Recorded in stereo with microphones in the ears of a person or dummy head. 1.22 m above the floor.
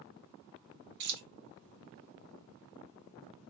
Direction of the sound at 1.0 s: 60° right (ahead or behind).